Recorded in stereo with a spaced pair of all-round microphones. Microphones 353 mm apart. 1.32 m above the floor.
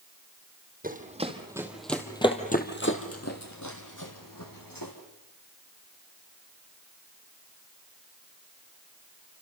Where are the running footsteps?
25° right (ahead or behind), 3 m; by 4.9 s 70° left (ahead or behind), 4 m.